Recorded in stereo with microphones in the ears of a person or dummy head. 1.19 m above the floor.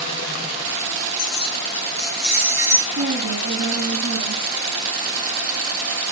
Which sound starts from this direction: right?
A woman speaking, at 2.9 s.